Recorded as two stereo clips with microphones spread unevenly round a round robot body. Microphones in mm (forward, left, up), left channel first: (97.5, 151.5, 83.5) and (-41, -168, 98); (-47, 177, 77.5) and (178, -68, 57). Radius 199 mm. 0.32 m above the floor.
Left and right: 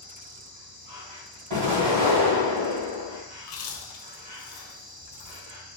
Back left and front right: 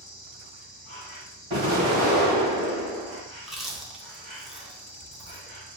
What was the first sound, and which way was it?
An insect, 170° right.